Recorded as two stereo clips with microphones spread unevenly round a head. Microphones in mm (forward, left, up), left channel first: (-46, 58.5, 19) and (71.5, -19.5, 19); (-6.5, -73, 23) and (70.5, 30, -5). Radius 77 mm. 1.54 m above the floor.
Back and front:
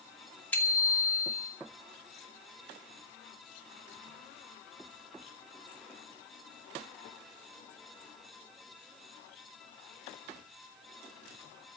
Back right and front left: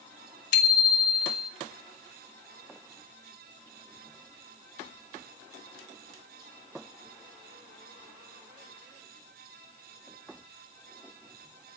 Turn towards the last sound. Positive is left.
turn(degrees=-135)